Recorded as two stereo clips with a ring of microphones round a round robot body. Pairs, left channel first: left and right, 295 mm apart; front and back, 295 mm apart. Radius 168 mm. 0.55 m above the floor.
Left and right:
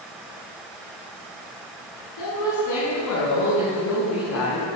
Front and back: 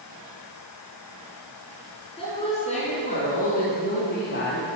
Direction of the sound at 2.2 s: 70° left.